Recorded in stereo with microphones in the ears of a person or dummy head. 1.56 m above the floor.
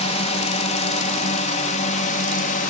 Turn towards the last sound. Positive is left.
turn(degrees=40)  # may be behind; listen again after turning